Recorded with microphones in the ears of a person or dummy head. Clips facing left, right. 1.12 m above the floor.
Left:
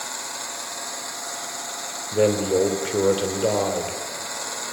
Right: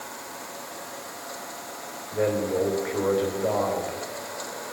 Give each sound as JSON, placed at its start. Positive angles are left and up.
{"t": 2.1, "sound": "a man speaking", "side_deg": 45, "distance_m": 3.5}